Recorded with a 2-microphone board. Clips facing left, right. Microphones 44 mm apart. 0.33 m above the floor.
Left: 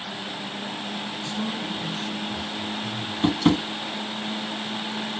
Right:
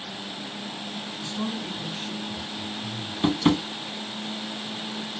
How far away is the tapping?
About 0.6 m.